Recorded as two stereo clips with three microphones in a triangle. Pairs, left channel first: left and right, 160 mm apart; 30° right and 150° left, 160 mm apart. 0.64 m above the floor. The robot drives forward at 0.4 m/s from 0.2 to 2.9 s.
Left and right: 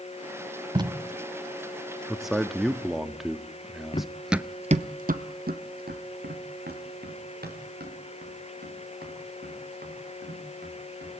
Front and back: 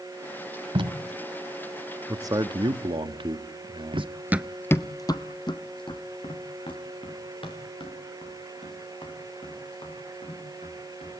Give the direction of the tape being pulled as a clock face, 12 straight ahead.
5 o'clock.